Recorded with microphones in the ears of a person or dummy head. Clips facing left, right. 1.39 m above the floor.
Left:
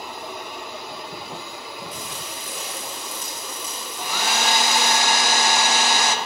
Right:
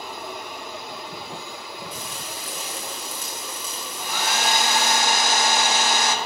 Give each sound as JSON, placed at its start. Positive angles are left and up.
{"t": 1.9, "sound": "frying", "side_deg": -25, "distance_m": 0.9}
{"t": 4.0, "sound": "a hair dryer", "side_deg": 65, "distance_m": 0.9}